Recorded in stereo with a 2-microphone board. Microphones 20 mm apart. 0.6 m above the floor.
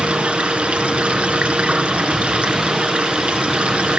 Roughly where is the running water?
Right.